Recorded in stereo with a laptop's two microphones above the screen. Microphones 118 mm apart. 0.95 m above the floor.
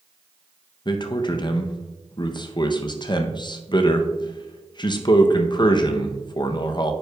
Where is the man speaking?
40° left (ahead or behind), 0.5 m.